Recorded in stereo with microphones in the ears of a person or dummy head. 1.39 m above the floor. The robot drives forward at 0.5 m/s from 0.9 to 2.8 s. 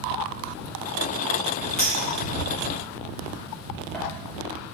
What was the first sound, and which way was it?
A clink, 5° left (ahead or behind).